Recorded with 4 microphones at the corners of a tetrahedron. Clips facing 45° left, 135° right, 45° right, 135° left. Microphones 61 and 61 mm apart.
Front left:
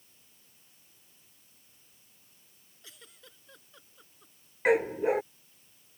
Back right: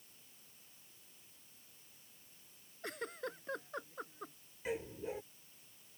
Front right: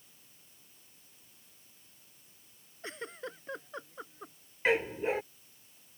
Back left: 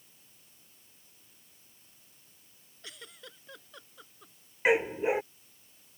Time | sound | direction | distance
2.8 | a giggle | 100° right | ?
4.7 | a dog barking | 60° left | ?